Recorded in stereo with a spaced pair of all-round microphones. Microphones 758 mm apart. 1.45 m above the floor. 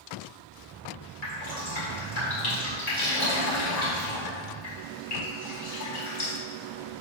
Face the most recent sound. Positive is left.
turn(degrees=60)  # may be behind; listen again after turning